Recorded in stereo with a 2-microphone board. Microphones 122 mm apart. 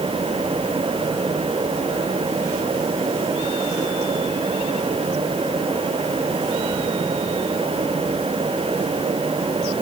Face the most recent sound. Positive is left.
No sound to turn to.